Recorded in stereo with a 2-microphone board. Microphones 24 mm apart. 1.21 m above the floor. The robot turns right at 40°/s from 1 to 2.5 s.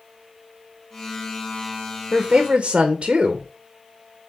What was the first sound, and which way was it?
A woman speaking, 30° right (ahead or behind).